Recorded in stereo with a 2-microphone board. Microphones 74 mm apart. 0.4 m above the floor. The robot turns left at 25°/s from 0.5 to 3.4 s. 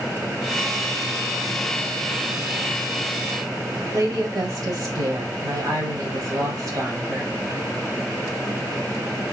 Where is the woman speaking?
55° right (ahead or behind), 1.8 m.